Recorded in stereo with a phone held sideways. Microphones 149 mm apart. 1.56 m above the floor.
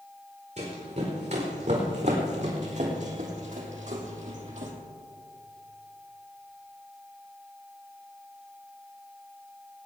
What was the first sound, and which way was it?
Running footsteps, 50° right (ahead or behind).